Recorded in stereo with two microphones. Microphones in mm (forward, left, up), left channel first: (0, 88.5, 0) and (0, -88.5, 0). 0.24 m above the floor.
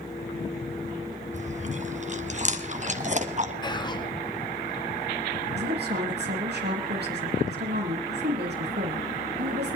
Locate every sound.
1.3 s chewing: 40° right (ahead or behind), 1.4 m
3.6 s whispering: 25° left (ahead or behind), 2.5 m
5.6 s a woman speaking: 70° right (ahead or behind), 5.5 m